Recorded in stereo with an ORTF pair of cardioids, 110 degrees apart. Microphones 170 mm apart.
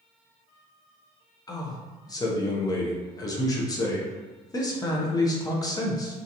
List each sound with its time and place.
1.5 s a man speaking: 20° left, 0.7 m